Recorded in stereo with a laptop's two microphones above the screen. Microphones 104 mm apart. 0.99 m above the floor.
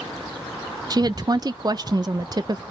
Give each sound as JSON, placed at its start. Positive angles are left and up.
{"t": 0.9, "sound": "a woman speaking", "side_deg": -40, "distance_m": 0.6}